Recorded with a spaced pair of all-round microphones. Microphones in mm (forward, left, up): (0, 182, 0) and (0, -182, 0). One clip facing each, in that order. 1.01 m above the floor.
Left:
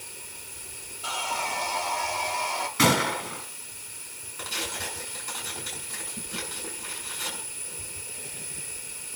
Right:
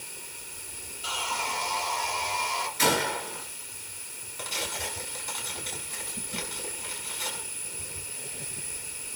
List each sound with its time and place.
1.0 s sawing: 65° left (ahead or behind), 2.5 m
2.8 s a gunshot: 75° left (ahead or behind), 4.5 m
4.4 s tearing paper: 20° left (ahead or behind), 7 m